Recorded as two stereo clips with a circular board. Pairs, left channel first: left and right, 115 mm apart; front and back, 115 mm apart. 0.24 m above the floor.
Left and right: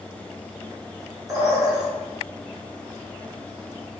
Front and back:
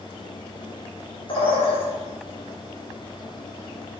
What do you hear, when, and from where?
1.3 s a bird: 35° right, 2.5 m